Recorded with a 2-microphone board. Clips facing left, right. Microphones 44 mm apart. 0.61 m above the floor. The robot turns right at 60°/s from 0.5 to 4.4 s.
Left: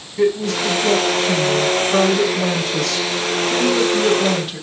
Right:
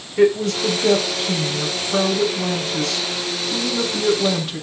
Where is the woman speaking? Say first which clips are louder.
Right 1 dB; 55° right, 2.5 m; by 4.6 s straight behind, 2.5 m.